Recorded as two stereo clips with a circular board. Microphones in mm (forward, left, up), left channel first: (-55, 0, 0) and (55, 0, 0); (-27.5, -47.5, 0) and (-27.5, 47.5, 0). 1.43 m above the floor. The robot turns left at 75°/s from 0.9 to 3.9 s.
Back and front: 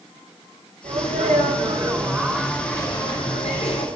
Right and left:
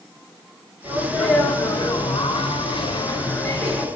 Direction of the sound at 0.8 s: 30° left.